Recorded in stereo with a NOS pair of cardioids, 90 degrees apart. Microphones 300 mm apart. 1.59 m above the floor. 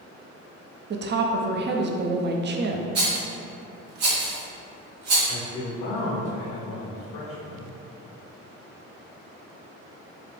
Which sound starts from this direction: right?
A rattle, at 3.0 s.